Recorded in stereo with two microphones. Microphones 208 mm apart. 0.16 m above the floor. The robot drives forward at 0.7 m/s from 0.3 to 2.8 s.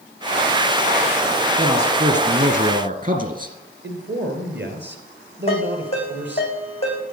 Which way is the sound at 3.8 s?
60° right (ahead or behind).